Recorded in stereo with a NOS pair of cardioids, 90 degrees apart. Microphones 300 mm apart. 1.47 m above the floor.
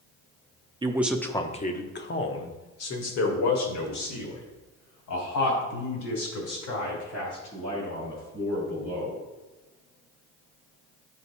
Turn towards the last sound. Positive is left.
turn(degrees=75)